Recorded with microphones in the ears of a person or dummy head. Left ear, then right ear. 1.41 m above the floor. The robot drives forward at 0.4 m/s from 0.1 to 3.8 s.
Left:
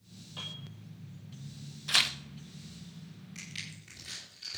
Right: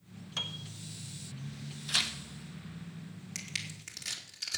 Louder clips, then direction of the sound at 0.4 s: Right 5 dB; 70° right (ahead or behind).